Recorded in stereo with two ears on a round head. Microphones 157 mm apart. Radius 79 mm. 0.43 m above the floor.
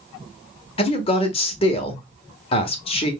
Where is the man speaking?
35° left (ahead or behind), 1.0 m.